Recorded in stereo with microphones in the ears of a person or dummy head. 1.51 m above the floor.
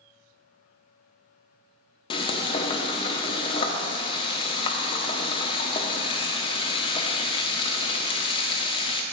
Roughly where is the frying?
Left.